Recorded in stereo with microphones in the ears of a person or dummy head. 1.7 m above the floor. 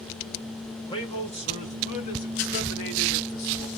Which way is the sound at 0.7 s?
20° left (ahead or behind).